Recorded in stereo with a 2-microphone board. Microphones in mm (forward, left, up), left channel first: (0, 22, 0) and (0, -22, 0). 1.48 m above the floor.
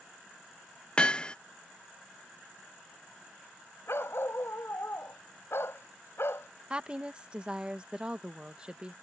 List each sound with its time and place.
1.0 s hammering: 20° left (ahead or behind)
3.9 s a dog barking: 70° left (ahead or behind)
6.7 s a woman speaking: 25° right (ahead or behind)